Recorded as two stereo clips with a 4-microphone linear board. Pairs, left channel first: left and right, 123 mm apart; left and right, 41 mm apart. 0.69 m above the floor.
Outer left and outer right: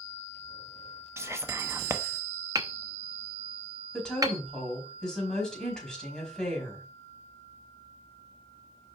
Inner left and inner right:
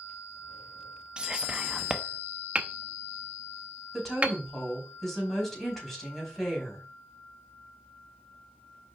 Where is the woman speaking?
5° left (ahead or behind), 4.5 m.